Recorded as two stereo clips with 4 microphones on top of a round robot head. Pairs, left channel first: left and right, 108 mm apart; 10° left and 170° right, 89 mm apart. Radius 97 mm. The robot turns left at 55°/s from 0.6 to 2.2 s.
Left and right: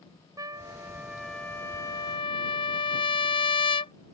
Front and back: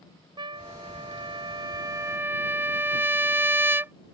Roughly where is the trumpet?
Behind right.